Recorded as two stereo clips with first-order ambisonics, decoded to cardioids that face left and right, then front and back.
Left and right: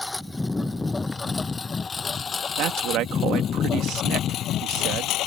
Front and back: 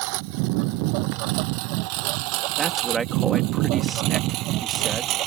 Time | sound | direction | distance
0.0 | a lawn mower | 175° left | ?
2.6 | a man speaking | 115° right | ?